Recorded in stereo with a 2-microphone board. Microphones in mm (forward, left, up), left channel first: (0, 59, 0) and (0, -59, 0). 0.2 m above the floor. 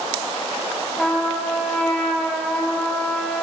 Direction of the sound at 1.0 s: 10° left (ahead or behind).